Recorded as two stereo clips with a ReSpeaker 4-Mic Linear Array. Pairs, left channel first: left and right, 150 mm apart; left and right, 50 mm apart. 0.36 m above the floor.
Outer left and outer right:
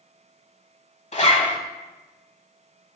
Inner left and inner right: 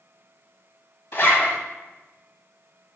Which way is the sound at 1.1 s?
50° left (ahead or behind).